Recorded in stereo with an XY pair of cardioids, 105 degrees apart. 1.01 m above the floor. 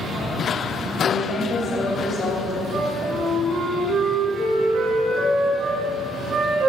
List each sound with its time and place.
1.0 s a woman speaking: 70° left, 2 m
2.7 s a flute: 70° right, 2.5 m